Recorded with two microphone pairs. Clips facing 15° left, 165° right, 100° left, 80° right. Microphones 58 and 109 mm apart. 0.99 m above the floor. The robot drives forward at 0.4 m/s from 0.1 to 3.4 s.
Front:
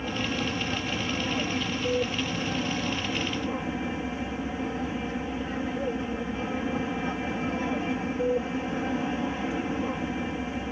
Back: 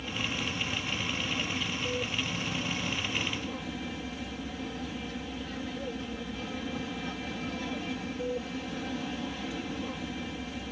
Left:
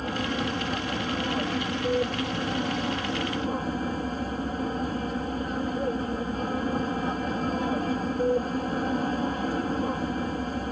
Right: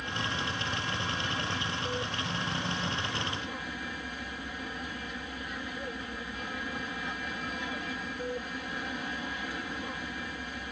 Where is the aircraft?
60° left; by 10.7 s 65° left.